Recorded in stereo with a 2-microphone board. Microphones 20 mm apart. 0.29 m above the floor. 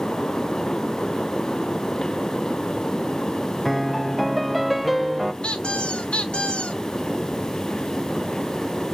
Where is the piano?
Centre (ahead or behind), 0.6 m.